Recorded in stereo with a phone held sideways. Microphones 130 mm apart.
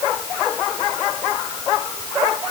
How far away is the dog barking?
No dog barking in this recording.